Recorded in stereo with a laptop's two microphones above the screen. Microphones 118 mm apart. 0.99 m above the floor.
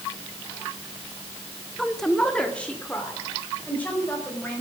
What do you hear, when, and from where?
1.8 s a woman speaking: centre (ahead or behind), 1.0 m; by 4.6 s 15° left (ahead or behind), 5 m